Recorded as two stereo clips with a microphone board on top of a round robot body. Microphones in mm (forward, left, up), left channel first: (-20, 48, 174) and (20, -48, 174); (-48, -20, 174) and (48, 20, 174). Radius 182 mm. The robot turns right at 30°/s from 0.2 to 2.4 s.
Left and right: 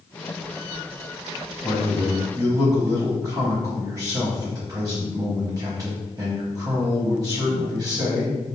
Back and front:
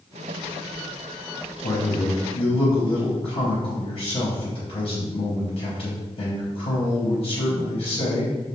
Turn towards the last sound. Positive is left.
turn(degrees=-125)